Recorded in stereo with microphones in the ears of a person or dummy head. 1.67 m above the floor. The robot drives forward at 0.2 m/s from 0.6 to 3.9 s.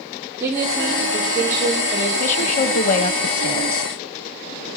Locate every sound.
0.4 s a woman speaking: 10° right (ahead or behind), 4 m
2.2 s a woman speaking: 35° left (ahead or behind), 1.4 m; by 3.9 s 45° left (ahead or behind), 1.1 m